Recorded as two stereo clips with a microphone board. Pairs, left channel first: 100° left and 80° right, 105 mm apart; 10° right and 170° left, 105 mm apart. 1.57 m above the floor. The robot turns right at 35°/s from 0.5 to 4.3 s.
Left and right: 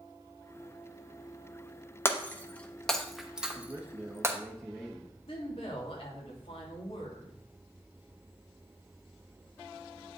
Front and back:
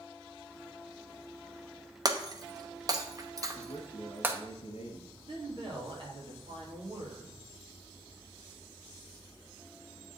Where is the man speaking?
35° right, 1.5 m; by 5.2 s 5° right, 1.5 m.